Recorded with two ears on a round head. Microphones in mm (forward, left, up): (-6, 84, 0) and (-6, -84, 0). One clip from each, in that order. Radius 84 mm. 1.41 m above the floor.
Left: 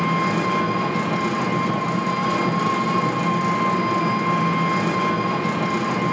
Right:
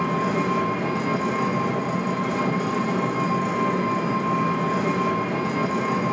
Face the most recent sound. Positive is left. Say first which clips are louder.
# left 3 dB
turn(degrees=75)  # may be behind; listen again after turning